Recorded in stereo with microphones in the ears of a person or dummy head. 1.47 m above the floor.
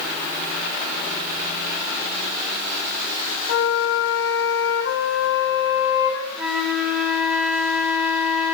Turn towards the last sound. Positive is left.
turn(degrees=0)  # may be behind; listen again after turning